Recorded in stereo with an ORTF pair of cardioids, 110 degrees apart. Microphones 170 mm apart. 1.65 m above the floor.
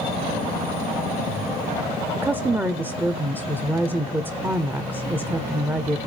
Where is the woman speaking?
10° right, 0.7 m.